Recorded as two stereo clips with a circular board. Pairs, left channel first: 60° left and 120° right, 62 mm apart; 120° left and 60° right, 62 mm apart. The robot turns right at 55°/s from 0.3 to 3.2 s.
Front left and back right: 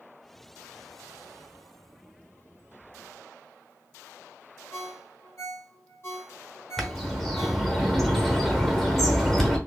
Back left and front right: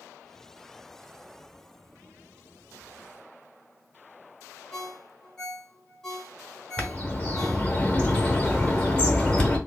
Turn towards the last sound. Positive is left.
turn(degrees=130)